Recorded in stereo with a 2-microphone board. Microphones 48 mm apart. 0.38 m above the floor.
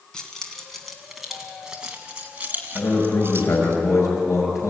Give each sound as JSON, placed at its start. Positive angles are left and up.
{"t": 0.1, "sound": "keys jangling", "side_deg": 15, "distance_m": 3.0}
{"t": 2.8, "sound": "a man speaking", "side_deg": 80, "distance_m": 6.0}